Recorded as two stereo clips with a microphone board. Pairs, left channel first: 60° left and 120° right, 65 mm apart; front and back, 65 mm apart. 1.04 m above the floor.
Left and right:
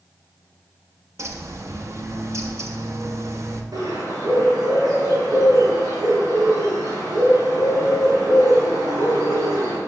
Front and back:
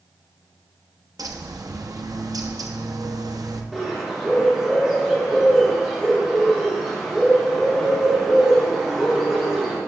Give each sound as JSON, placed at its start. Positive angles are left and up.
{"t": 1.2, "sound": "a bird", "azimuth_deg": -160, "distance_m": 0.9}
{"t": 3.7, "sound": "a bird", "azimuth_deg": -100, "distance_m": 3.5}